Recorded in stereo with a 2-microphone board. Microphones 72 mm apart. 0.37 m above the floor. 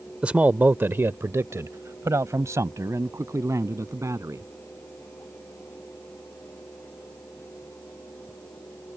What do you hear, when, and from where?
0.2 s a man speaking: 15° right (ahead or behind); by 4.5 s 50° right (ahead or behind)